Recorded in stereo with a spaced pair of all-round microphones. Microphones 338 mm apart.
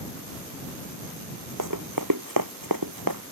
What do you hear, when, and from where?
1.6 s running footsteps: 65° right (ahead or behind); by 3.2 s 80° right